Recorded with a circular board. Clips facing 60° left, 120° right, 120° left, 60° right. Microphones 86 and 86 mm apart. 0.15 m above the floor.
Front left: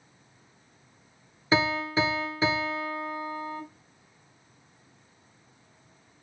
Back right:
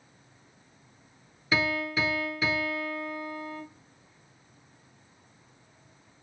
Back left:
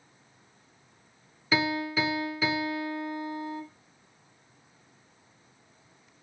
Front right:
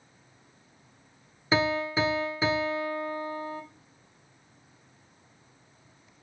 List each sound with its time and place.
1.5 s a piano: straight ahead, 0.7 m